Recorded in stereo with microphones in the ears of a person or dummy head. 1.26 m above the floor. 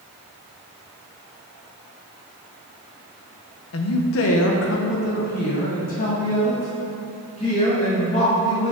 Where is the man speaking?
70° left (ahead or behind), 0.8 m; by 8.7 s 25° left (ahead or behind), 3 m.